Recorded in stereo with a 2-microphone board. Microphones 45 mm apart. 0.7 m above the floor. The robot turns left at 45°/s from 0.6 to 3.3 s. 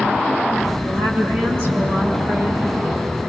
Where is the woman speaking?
75° right, 7 m; by 2.6 s 155° right, 7 m.